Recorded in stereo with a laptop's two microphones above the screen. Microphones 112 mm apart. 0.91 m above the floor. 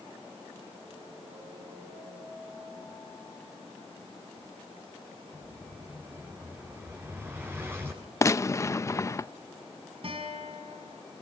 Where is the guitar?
55° right (ahead or behind), 5 m.